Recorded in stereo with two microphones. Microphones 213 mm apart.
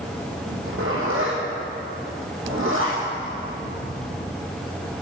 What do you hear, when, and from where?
0.5 s a zipper: 70° right (ahead or behind), 3 m